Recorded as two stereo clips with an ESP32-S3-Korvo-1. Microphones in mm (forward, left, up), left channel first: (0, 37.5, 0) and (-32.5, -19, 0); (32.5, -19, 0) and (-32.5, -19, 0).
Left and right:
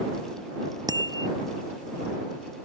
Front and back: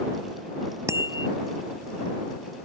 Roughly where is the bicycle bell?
Behind right.